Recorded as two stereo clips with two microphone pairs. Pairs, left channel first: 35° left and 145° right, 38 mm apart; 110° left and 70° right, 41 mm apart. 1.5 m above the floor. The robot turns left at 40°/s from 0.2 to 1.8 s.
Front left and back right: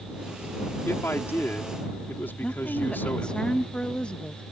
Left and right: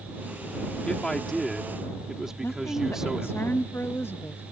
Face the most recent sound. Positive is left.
turn(degrees=100)